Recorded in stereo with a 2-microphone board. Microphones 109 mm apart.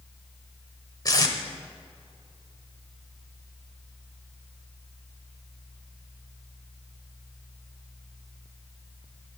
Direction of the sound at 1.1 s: 35° left (ahead or behind).